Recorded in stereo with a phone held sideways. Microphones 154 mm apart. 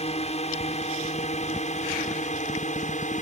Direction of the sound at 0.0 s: 45° left (ahead or behind).